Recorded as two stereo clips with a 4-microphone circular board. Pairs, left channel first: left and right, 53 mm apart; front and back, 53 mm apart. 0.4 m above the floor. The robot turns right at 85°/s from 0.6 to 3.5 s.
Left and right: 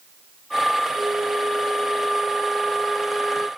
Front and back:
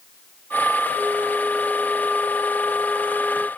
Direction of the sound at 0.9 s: 125° right.